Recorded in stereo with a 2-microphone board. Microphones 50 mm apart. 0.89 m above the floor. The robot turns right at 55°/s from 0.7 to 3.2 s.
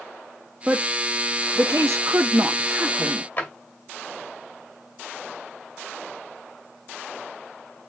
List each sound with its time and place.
0.7 s a woman speaking: 25° right (ahead or behind), 1.1 m; by 3.3 s 15° right (ahead or behind), 1.1 m
3.4 s a drawer: 35° left (ahead or behind), 2 m